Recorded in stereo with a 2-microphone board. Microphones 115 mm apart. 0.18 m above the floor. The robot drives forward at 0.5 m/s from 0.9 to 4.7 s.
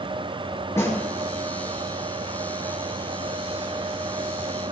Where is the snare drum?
25° left (ahead or behind), 3 m.